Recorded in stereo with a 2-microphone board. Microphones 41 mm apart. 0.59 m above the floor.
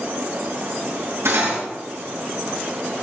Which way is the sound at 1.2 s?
80° right.